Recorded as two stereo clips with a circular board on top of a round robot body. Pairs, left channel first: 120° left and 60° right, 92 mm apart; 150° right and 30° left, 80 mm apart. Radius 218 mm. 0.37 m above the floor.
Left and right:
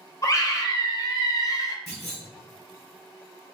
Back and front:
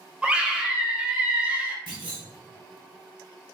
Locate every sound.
0.2 s a scream: 100° left, 1.5 m
1.9 s a clunk: 30° left, 2.0 m